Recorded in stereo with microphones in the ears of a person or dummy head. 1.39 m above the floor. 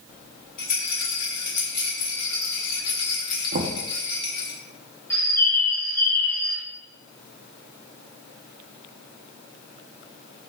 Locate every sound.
0.6 s a rattle: 50° left (ahead or behind), 1.8 m
3.5 s knocking: 45° right (ahead or behind), 0.5 m
5.1 s a bird: 15° left (ahead or behind), 0.8 m